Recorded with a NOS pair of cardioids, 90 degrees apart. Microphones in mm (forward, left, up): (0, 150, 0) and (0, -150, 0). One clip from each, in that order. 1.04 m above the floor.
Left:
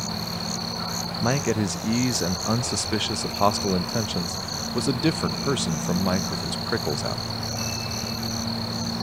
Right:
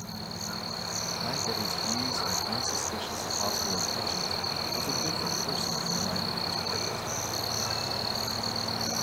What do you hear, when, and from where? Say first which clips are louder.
0.0 s a machine running: left 7 dB; 60° left, 2.5 m
1.2 s a man speaking: left 9 dB; 65° left, 0.6 m